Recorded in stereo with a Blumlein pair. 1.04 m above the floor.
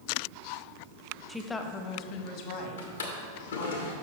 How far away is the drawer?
About 1.4 m.